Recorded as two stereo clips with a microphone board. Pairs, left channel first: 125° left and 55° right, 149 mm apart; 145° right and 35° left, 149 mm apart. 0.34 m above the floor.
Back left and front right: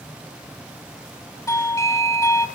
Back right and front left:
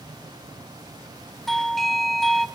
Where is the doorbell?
130° left, 1.3 m.